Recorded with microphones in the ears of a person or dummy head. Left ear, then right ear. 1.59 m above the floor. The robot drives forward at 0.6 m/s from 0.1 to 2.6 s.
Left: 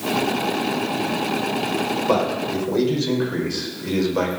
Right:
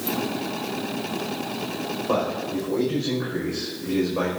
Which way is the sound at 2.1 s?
75° left (ahead or behind).